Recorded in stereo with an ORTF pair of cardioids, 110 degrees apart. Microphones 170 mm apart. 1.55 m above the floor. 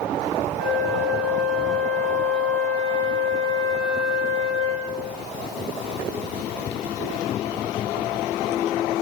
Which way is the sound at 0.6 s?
60° right.